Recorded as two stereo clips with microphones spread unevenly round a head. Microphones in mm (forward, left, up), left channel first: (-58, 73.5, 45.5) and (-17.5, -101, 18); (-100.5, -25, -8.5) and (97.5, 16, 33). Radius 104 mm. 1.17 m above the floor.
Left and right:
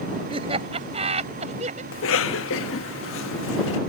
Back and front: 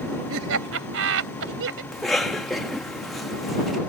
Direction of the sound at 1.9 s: 105° left.